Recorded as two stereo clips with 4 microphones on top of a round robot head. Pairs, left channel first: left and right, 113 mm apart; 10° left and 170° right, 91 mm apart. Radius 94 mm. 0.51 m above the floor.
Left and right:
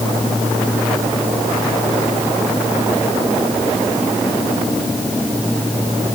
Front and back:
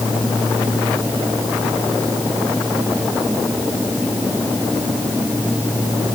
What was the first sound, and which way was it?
Only background noise.